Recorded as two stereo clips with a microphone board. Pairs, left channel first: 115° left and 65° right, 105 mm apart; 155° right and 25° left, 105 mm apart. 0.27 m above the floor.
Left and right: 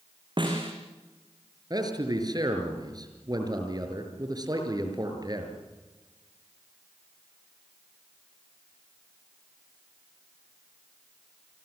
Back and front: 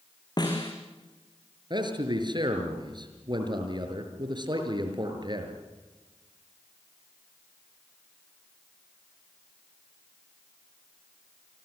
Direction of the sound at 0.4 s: 110° right.